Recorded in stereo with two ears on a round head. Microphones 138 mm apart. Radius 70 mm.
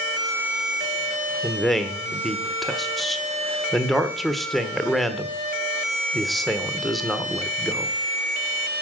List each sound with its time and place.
1.4 s a man speaking: centre (ahead or behind), 1.1 m